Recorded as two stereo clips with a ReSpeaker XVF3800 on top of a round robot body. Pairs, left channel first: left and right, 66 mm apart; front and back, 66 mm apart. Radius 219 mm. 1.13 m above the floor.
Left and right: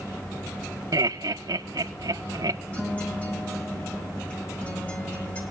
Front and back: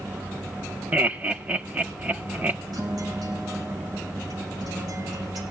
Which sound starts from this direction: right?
Laughter, at 0.9 s.